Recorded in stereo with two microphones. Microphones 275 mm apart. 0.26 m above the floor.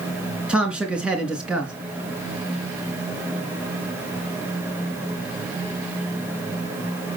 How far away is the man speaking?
About 3 m.